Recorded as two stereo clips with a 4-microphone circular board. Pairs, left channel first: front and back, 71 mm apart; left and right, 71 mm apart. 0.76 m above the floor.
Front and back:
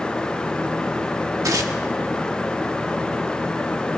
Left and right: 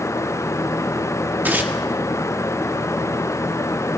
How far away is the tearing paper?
About 1.2 m.